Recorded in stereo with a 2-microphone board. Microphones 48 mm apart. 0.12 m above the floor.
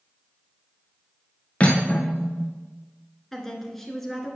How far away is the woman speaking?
About 1.2 m.